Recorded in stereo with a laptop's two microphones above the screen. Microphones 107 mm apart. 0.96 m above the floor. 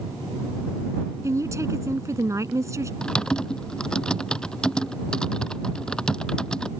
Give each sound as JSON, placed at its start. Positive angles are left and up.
{"t": 1.2, "sound": "a woman speaking", "side_deg": -30}
{"t": 3.0, "sound": "typing on a keyboard", "side_deg": 5}